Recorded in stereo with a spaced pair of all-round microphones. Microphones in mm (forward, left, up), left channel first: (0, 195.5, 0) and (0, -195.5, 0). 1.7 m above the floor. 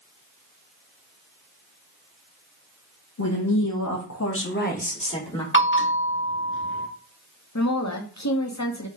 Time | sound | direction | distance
3.2 | a woman speaking | 40° left (ahead or behind) | 1.1 m
5.5 | a bell | 30° left (ahead or behind) | 1.0 m
7.5 | a woman speaking | 45° left (ahead or behind) | 0.9 m